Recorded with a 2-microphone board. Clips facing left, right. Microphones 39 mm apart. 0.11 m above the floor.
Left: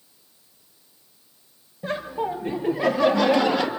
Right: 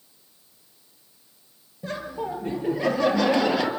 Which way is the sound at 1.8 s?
25° left (ahead or behind).